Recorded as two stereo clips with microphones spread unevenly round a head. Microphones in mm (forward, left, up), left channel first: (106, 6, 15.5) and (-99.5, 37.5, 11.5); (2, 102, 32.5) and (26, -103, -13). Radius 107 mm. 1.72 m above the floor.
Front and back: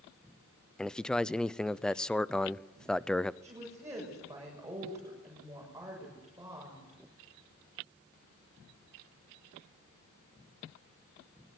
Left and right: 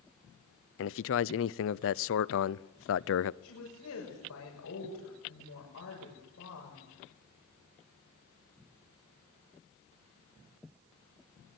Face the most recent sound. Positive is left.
turn(degrees=95)